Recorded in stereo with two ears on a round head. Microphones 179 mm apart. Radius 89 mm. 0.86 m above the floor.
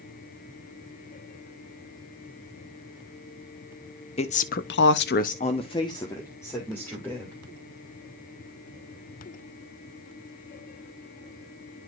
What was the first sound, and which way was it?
A woman speaking, 30° left (ahead or behind).